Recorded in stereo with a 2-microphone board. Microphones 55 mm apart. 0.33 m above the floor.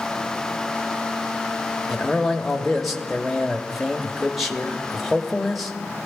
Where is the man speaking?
Centre (ahead or behind), 1.1 m.